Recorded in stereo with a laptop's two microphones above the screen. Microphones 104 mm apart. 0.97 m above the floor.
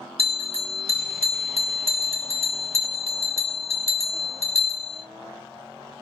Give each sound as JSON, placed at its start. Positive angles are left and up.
{"t": 0.2, "sound": "a bell", "side_deg": 75, "distance_m": 1.8}